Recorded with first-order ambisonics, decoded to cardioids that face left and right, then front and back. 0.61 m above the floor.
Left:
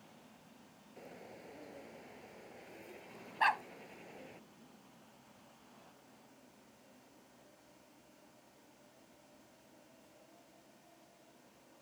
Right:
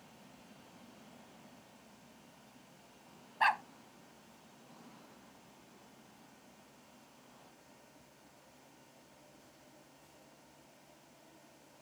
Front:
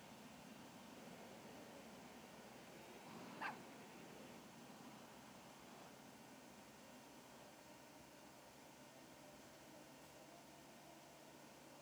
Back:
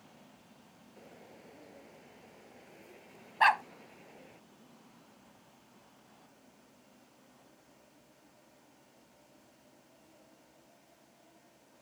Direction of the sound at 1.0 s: 115° left.